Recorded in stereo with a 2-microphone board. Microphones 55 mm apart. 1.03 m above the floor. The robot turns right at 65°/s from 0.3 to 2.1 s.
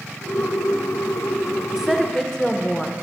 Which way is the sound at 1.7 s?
10° right (ahead or behind).